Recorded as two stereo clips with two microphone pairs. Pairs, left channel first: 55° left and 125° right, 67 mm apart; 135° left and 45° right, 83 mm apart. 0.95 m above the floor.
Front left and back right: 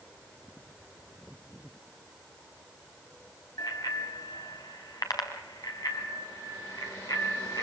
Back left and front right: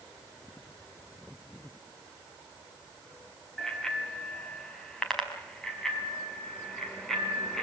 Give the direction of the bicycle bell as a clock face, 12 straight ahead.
10 o'clock.